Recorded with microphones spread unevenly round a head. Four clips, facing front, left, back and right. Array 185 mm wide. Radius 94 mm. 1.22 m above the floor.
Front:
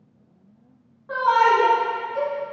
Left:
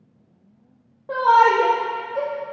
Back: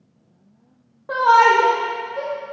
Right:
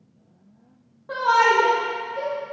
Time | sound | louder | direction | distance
1.1 | a shout | left 3 dB, back 4 dB | 145° left | 0.7 m